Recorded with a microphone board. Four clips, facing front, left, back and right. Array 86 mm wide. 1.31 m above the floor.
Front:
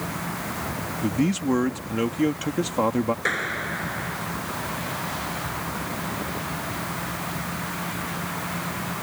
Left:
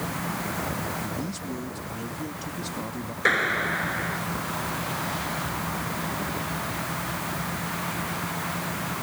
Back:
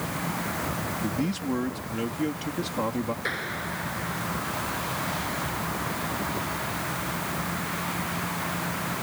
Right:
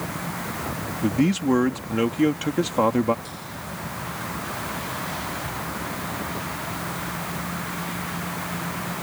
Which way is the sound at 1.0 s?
65° right.